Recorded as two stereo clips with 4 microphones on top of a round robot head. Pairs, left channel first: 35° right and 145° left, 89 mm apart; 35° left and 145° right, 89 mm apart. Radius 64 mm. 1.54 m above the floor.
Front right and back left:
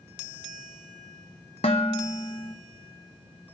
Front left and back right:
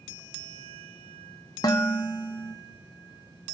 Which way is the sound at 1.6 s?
15° right.